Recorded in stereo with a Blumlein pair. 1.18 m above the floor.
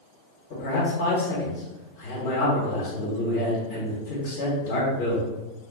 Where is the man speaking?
55° left, 1.3 m.